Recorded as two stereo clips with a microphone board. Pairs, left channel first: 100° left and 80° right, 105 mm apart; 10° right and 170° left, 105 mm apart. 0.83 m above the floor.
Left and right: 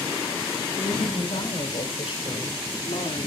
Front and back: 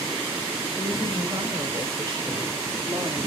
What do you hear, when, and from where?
0.8 s a woman speaking: 125° left, 3 m; by 3.3 s 115° left, 1.7 m